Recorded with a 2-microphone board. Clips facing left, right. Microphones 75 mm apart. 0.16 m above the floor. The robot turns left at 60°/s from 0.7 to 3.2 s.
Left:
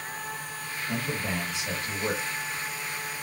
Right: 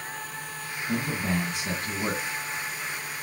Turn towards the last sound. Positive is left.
turn(degrees=180)